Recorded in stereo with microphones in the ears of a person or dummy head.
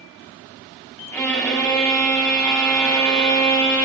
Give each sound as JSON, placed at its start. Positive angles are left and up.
{"t": 1.1, "sound": "a violin", "side_deg": 10, "distance_m": 5.5}